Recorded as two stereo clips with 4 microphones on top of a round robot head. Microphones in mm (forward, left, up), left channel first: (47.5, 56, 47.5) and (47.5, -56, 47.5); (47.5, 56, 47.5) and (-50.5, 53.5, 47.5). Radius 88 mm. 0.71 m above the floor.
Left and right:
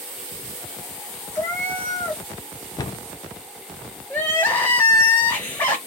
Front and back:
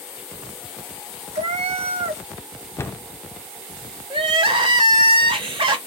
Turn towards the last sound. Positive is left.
turn(degrees=170)